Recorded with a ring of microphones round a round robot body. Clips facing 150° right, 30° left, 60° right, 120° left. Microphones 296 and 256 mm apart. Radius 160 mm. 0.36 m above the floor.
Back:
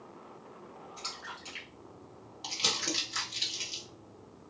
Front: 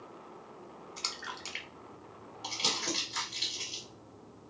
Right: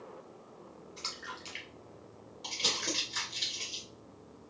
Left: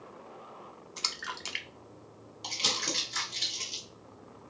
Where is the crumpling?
175° left, 1.5 m.